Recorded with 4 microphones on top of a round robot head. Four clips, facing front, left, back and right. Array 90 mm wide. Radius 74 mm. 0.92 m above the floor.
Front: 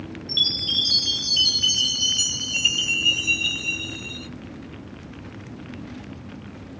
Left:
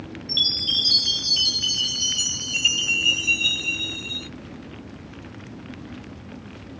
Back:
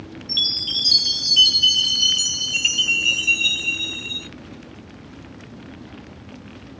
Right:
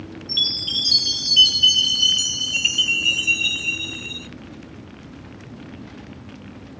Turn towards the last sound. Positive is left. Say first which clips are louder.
# left 1 dB, even
turn(degrees=-135)